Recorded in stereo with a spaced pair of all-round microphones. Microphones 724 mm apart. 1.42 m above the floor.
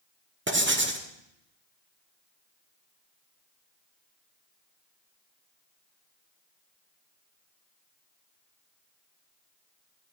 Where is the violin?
No violin in this recording.